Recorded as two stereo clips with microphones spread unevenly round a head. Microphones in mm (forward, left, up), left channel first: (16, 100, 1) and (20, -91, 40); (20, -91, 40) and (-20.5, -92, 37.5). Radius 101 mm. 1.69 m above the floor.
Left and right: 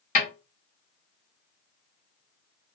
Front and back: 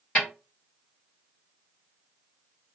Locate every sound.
0.1 s a snare drum: 60° left, 1.3 m